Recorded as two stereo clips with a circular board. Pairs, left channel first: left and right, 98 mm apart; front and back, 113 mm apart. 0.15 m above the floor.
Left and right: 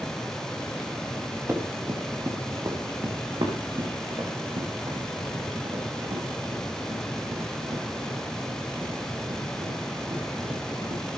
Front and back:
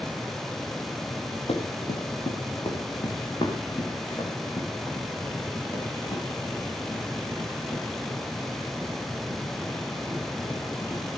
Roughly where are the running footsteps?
Ahead right.